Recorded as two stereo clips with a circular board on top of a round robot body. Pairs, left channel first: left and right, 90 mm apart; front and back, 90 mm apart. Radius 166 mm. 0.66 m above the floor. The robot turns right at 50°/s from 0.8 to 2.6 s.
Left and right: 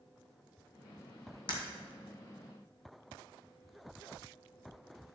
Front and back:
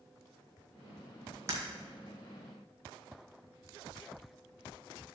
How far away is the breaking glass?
About 1.6 m.